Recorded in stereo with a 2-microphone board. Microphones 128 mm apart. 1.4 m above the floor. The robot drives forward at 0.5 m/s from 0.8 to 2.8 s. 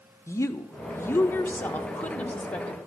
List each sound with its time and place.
0.3 s a woman speaking: 25° left (ahead or behind), 0.8 m; by 2.8 s 10° left (ahead or behind), 1.7 m